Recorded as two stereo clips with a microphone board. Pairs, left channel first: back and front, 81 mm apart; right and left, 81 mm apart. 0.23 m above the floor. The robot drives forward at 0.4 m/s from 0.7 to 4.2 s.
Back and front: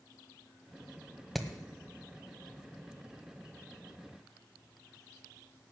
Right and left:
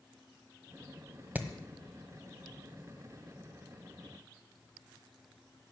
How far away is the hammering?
About 1.2 m.